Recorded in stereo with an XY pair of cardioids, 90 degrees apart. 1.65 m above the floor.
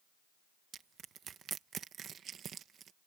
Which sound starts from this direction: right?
Crushing, at 0.7 s.